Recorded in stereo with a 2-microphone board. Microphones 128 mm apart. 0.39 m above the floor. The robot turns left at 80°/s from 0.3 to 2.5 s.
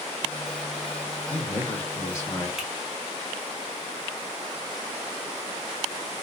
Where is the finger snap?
5° right (ahead or behind), 1.3 m.